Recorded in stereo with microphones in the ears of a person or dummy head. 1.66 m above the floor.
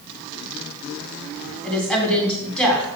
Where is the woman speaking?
Centre (ahead or behind), 3 m.